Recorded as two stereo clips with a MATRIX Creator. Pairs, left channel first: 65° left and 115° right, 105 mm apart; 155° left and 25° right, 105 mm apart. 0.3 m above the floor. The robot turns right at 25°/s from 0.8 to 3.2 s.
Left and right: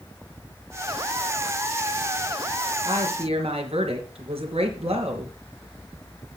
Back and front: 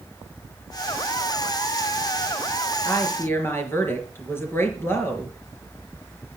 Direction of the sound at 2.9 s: 145° right.